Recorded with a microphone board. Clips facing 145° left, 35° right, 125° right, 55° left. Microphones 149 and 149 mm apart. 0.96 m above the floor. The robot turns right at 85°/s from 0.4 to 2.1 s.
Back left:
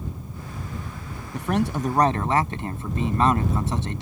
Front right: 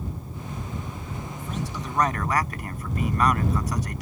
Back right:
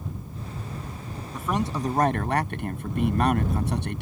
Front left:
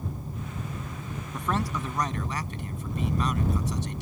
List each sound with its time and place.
1.3 s a man speaking: 145° left; by 4.0 s 150° right